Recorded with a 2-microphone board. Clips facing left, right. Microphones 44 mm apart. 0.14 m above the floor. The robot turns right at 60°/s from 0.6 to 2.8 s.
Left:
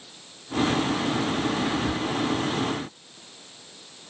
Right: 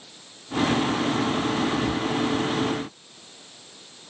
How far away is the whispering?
About 1.9 m.